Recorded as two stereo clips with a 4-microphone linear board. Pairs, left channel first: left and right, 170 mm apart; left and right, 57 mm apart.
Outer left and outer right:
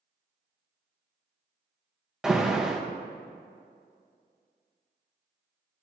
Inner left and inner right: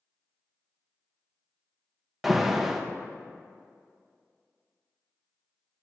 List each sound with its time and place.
2.2 s an alarm: 5° right (ahead or behind), 0.6 m